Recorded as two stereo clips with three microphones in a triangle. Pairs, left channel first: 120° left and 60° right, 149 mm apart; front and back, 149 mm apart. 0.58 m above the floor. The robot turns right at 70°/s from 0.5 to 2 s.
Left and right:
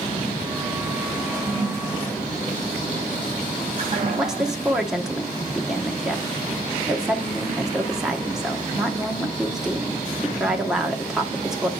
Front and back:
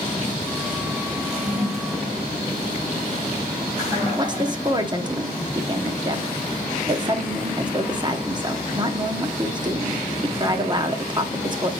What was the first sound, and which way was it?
A toilet flushing, 160° right.